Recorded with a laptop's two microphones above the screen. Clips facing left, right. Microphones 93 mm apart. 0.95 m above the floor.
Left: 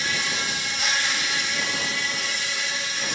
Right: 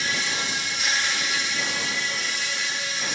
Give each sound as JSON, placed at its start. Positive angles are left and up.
{"t": 0.0, "sound": "an insect", "side_deg": 60, "distance_m": 2.0}